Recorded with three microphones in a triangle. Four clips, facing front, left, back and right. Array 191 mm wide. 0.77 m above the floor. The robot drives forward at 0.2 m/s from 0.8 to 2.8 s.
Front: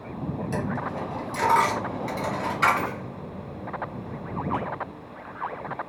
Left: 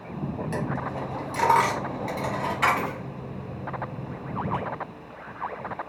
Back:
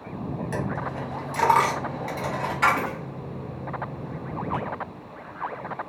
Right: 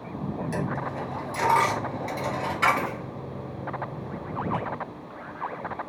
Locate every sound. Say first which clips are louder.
0.5 s a dropped coin: even, even; 140° left, 1.3 m; by 4.6 s 150° left, 1.6 m